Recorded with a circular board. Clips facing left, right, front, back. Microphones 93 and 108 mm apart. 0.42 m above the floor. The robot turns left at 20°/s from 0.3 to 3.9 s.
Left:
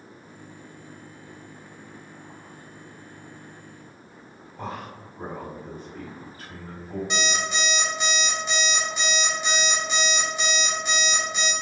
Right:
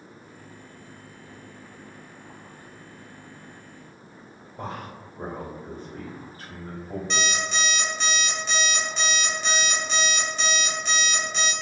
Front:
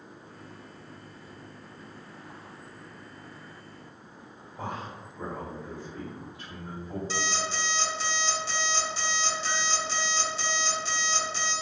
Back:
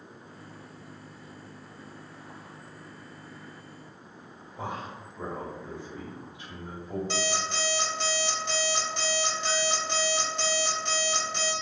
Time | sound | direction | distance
4.6 | a man speaking | 120° right | 1.8 m
7.1 | an alarm clock | 165° left | 1.1 m